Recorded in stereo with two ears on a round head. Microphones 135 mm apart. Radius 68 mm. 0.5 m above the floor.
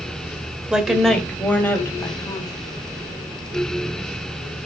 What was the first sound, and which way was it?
A woman speaking, 5° right (ahead or behind).